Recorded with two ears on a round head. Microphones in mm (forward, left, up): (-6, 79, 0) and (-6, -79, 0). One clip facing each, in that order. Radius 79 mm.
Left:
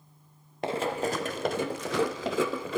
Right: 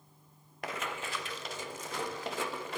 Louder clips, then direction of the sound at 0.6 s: Left 10 dB; 25° left (ahead or behind).